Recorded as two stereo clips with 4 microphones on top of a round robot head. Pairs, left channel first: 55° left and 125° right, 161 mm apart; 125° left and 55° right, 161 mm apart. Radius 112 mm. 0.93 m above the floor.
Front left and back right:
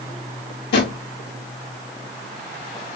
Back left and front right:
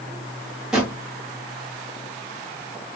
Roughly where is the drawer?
Ahead left.